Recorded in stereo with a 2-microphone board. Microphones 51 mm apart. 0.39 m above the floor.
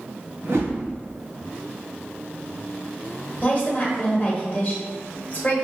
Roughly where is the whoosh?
Right.